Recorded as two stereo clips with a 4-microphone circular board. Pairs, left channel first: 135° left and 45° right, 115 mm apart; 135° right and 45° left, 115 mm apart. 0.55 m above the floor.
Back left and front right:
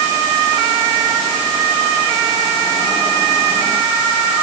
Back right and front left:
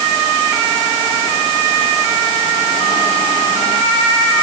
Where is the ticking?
No ticking in this recording.